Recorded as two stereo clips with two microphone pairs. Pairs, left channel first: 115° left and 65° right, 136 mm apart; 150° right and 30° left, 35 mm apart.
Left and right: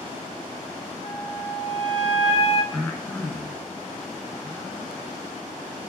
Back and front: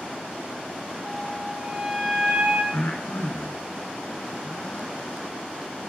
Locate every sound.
1.0 s a flute: 30° right, 1.7 m
2.7 s breathing: 160° right, 2.5 m